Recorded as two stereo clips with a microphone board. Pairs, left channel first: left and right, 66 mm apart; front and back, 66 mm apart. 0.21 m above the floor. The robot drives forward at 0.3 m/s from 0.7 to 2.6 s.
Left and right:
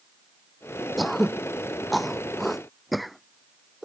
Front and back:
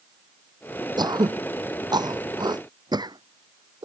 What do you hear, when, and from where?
1.0 s throat clearing: straight behind